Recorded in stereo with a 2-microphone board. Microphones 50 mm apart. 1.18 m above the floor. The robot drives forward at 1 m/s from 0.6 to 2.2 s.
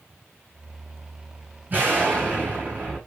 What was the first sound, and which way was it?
An explosion, 40° right (ahead or behind).